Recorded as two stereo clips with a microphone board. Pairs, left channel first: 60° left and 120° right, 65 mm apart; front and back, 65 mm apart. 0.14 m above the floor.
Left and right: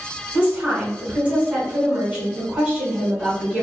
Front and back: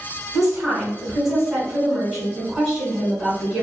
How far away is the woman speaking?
About 1.5 m.